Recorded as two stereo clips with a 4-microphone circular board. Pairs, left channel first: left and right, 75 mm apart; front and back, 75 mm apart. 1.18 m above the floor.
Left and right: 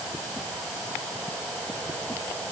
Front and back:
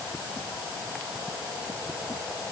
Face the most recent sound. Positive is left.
No sound to turn to.